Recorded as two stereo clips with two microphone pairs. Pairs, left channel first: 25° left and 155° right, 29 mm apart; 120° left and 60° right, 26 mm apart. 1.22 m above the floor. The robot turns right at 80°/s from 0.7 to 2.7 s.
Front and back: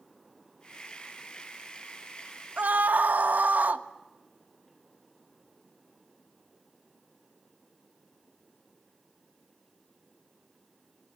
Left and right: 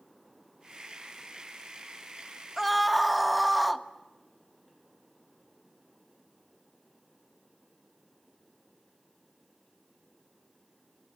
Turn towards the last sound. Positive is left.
turn(degrees=-150)